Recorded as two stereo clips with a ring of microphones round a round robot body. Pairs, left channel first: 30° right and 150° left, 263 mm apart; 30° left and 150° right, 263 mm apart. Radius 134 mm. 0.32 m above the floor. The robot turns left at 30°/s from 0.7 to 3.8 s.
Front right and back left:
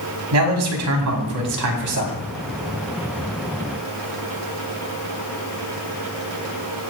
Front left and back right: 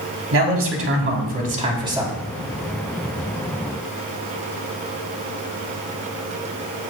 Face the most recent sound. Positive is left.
turn(degrees=80)